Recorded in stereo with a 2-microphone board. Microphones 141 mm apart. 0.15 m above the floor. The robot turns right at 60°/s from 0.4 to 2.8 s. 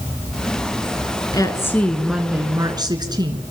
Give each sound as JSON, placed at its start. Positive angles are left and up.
{"t": 1.3, "sound": "a woman speaking", "azimuth_deg": 140, "distance_m": 1.9}